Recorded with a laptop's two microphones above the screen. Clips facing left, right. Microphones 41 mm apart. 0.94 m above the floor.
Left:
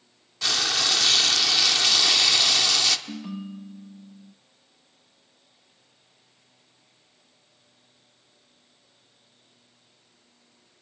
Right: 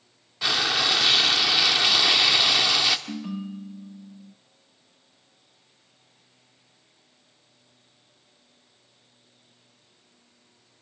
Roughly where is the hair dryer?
No hair dryer in this recording.